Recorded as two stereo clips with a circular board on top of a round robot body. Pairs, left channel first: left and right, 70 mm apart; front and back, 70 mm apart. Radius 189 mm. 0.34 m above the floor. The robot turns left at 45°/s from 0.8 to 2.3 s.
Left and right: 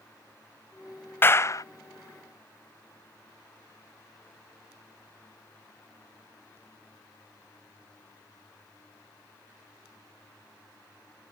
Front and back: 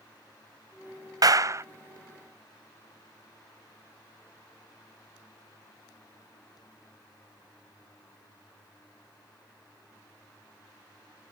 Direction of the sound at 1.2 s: 150° left.